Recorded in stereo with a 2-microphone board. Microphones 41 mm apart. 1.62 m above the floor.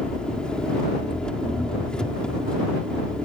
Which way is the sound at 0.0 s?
20° left (ahead or behind).